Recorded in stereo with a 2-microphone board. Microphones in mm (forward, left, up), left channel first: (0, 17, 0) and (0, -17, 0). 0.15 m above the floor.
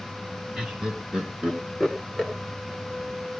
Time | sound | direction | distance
0.6 | laughter | 30° right (ahead or behind) | 1.9 m